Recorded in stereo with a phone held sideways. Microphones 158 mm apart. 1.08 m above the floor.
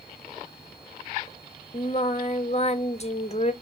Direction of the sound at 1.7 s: 45° left (ahead or behind).